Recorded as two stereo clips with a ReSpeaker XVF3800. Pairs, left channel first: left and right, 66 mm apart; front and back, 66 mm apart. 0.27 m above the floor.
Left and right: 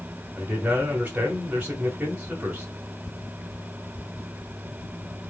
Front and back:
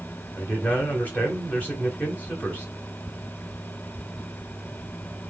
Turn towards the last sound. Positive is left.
turn(degrees=-40)